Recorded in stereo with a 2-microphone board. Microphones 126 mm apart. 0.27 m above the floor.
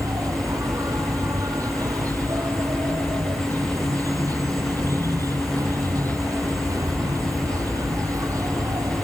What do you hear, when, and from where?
0.0 s an insect: 30° right (ahead or behind)